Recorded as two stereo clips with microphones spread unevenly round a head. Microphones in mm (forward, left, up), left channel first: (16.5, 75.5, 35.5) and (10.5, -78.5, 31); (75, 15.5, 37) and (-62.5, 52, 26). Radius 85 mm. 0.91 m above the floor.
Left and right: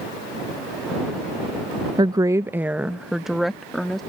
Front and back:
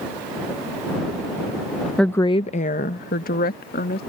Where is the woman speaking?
110° right; by 4.0 s straight ahead.